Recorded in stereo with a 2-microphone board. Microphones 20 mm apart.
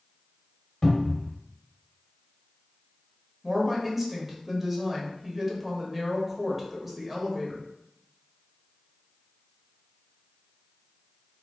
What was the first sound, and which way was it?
A cupboard door, 25° left (ahead or behind).